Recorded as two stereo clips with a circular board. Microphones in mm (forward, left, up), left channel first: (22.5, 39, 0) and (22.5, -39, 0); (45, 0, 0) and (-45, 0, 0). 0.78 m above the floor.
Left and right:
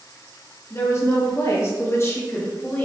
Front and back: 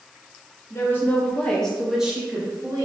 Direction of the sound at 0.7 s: 50° left.